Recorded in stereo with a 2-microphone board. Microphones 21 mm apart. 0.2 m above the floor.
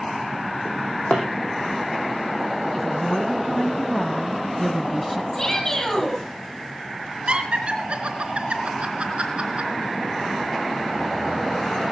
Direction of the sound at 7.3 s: 60° right (ahead or behind).